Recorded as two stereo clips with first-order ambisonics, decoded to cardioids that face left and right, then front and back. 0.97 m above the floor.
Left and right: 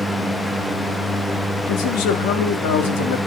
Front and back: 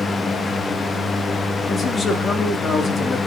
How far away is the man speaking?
About 2.5 m.